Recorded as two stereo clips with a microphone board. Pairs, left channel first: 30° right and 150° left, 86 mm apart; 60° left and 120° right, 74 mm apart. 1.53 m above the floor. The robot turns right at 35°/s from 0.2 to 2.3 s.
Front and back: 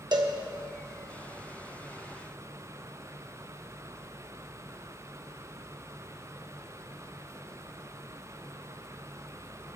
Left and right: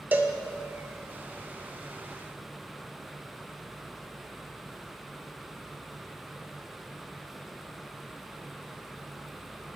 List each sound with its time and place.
0.1 s a cowbell: 175° left, 1.1 m; by 0.3 s straight behind, 1.1 m